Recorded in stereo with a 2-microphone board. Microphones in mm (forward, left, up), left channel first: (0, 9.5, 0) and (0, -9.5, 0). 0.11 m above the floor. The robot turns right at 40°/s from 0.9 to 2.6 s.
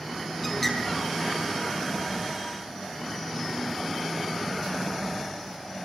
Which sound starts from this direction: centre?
A bird, at 0.4 s.